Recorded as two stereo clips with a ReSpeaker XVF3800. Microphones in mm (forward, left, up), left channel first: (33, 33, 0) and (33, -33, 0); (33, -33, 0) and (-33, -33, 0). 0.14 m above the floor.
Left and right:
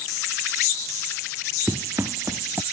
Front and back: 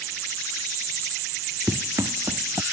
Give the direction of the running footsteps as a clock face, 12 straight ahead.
5 o'clock.